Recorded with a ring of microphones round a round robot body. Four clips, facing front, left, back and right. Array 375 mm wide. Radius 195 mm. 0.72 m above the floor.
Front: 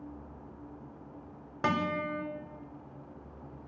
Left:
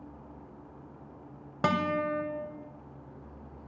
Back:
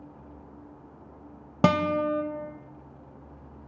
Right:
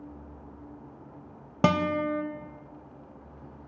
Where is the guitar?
155° right, 1.1 m.